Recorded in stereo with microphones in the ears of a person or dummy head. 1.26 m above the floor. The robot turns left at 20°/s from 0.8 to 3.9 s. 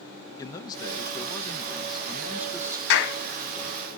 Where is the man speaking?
20° left, 0.7 m; by 2.8 s 20° right, 0.7 m.